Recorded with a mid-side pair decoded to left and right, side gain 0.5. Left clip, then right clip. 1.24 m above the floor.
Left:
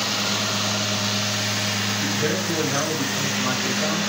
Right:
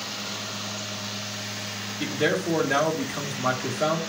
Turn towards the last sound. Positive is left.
turn(degrees=-55)